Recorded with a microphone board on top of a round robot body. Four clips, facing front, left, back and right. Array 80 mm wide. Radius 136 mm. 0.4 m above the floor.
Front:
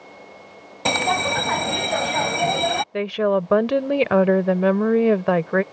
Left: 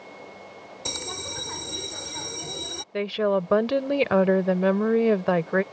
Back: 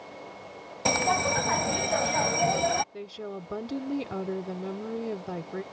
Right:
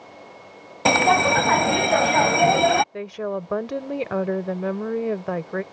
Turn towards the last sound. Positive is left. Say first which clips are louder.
# left 5 dB, front 17 dB
turn(degrees=15)